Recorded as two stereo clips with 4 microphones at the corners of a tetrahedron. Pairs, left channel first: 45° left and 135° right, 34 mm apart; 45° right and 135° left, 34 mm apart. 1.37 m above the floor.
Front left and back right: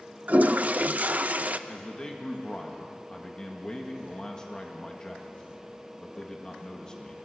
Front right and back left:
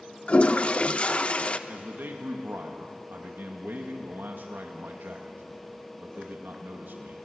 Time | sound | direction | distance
0.3 | a toilet flushing | 95° right | 0.7 m
1.7 | a man speaking | 115° left | 1.9 m